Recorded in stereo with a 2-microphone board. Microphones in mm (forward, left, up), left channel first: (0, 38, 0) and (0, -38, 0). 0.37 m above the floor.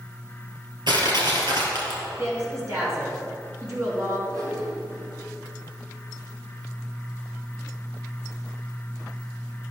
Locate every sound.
0.9 s crushing: 85° right, 2.5 m
2.2 s a woman speaking: 40° right (ahead or behind), 4 m
4.3 s a whoosh: 50° right (ahead or behind), 4 m